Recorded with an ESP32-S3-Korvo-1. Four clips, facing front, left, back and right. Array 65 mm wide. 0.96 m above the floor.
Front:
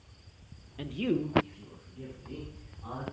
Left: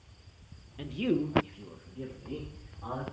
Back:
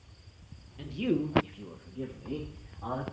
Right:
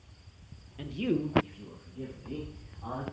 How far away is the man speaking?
About 0.5 m.